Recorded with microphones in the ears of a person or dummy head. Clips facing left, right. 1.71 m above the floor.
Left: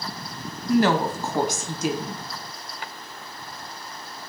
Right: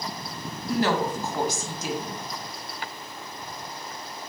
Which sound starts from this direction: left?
A woman speaking, at 0.7 s.